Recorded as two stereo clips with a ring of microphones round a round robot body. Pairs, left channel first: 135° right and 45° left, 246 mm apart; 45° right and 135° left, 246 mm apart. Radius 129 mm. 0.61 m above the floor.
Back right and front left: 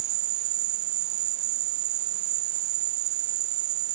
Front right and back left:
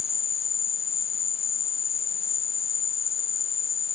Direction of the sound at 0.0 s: 20° left.